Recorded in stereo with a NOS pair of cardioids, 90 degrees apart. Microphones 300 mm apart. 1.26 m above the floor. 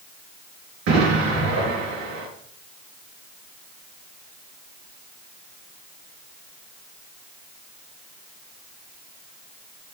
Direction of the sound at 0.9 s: 65° right.